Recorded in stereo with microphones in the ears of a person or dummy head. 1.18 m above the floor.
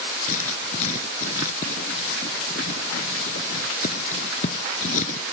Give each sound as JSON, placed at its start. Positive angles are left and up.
{"t": 0.3, "sound": "writing", "side_deg": 45}